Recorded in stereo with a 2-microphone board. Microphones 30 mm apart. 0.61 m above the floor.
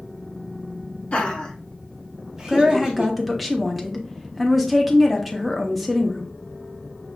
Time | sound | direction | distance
1.1 | laughter | 45° left (ahead or behind) | 1.5 m
2.5 | a woman speaking | 10° right (ahead or behind) | 0.7 m